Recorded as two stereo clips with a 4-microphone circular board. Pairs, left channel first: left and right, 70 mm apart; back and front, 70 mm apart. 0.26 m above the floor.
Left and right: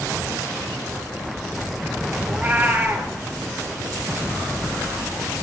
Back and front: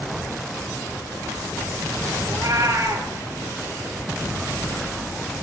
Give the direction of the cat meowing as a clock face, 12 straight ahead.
1 o'clock.